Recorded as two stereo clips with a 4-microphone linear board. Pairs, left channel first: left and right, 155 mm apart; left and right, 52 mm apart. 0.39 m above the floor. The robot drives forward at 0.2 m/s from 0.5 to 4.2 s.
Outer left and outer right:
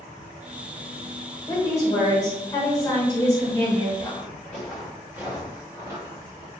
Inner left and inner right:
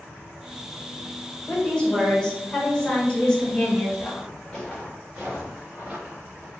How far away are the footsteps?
About 1.9 m.